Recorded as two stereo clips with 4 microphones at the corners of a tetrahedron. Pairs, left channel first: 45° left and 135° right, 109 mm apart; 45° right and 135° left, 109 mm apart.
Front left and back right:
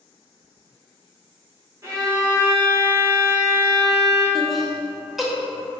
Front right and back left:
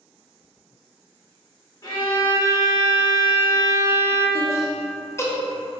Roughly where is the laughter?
Ahead right.